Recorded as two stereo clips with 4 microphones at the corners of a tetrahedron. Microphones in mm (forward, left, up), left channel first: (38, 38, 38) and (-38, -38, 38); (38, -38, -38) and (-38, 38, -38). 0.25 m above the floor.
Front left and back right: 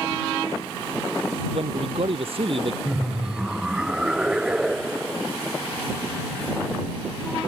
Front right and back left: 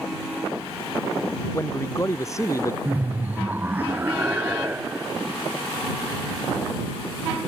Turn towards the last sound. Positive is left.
turn(degrees=160)